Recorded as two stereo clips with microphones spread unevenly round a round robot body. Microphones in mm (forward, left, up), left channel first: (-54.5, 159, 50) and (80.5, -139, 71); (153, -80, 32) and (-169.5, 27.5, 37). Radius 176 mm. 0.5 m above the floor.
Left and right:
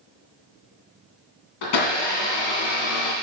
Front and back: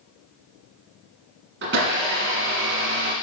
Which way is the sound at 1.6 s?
100° left.